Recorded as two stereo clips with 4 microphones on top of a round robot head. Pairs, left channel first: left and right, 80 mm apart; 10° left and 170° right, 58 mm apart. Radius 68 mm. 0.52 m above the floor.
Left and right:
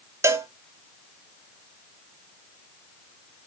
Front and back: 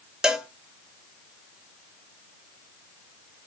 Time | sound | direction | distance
0.2 | a cowbell | 100° right | 1.2 m